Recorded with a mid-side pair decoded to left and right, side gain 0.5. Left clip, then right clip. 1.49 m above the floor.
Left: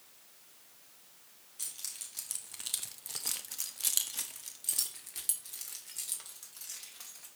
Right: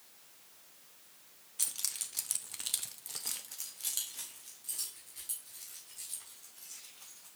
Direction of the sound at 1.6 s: 50° right.